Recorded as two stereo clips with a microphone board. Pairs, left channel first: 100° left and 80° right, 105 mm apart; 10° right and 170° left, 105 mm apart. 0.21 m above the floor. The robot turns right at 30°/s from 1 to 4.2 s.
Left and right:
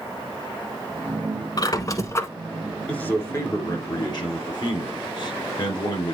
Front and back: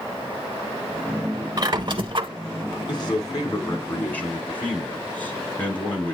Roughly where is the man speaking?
Ahead left.